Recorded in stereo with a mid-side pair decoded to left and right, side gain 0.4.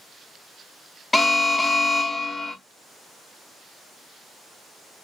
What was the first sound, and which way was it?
An alarm, 20° left.